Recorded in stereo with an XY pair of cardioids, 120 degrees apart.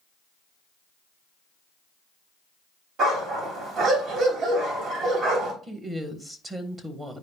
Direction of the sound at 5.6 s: 25° right.